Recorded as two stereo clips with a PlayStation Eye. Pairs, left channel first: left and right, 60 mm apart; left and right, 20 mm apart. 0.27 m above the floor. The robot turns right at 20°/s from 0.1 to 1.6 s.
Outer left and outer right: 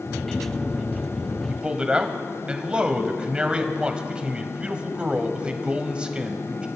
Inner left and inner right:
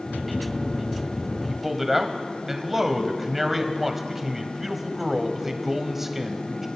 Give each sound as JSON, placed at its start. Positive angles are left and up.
{"t": 1.5, "sound": "a man speaking", "side_deg": -15, "distance_m": 1.1}